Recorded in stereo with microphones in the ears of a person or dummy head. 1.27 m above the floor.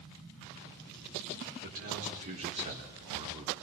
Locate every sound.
1.6 s a man speaking: 50° right (ahead or behind), 4.5 m; by 3.5 s 20° right (ahead or behind), 4 m